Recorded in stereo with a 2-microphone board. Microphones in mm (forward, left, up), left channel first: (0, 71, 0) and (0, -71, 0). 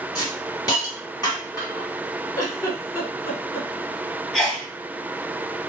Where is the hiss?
25° left (ahead or behind), 1.4 m.